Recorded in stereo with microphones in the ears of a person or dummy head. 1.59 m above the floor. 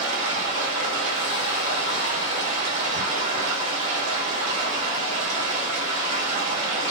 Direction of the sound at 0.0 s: 35° right (ahead or behind).